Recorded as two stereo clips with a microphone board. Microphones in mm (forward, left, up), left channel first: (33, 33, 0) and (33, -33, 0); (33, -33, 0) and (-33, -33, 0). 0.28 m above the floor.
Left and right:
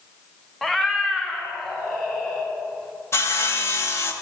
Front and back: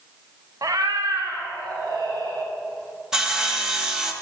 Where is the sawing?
105° left, 0.7 m.